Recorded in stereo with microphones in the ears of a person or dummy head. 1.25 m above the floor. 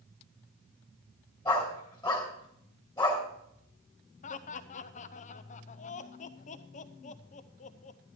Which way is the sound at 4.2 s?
35° left (ahead or behind).